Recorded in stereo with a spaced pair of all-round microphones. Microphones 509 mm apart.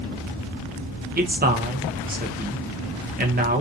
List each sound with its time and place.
1.2 s a man speaking: 20° right (ahead or behind), 0.5 m